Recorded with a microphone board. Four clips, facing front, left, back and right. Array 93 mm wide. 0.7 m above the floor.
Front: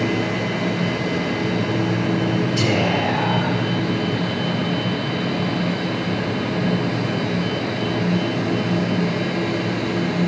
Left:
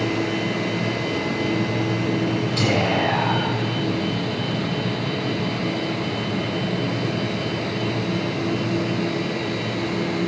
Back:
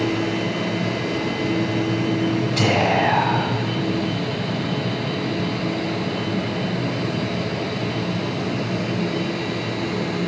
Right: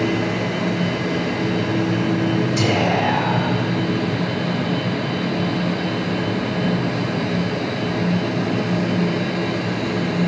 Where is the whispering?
165° right, 5.5 m.